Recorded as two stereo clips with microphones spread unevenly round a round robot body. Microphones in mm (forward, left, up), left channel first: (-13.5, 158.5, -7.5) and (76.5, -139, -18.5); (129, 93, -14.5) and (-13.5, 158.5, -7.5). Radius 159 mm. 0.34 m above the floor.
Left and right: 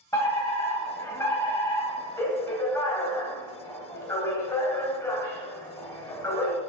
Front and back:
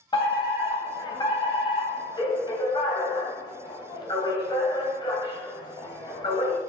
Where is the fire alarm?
25° left, 3 m.